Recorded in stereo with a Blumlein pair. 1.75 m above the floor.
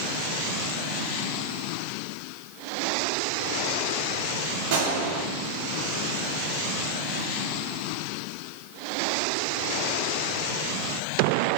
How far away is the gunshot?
About 3 m.